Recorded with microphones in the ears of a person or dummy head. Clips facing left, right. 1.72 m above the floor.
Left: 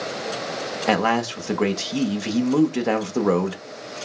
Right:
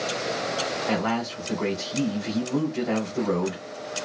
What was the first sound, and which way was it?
A man speaking, 75° left (ahead or behind).